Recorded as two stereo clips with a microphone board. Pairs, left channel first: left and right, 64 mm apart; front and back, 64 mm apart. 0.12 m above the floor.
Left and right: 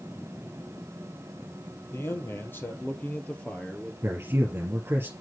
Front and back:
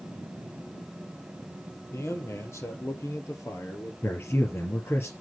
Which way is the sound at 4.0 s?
45° right.